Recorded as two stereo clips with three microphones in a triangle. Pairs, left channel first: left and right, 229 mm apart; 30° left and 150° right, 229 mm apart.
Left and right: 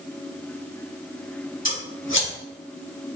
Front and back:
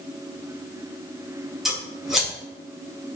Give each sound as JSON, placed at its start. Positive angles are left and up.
{"t": 1.6, "sound": "scissors", "azimuth_deg": 120, "distance_m": 2.0}